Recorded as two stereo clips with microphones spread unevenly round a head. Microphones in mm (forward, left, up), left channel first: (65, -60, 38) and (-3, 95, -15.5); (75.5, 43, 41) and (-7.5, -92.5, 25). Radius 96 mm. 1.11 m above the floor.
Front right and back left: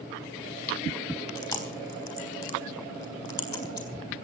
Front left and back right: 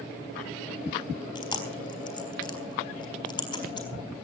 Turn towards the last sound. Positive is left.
turn(degrees=0)